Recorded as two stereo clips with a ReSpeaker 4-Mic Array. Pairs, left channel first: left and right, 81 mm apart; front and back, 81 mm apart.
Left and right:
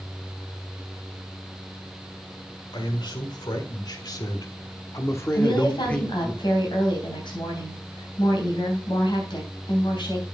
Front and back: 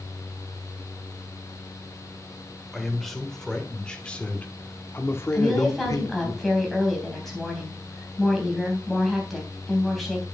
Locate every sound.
2.7 s a man speaking: 90° left, 1.9 m; by 6.3 s 5° left, 1.0 m
5.3 s a woman speaking: 90° left, 3.5 m